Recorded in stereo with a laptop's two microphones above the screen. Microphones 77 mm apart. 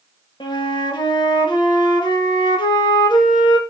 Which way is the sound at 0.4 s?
70° left (ahead or behind).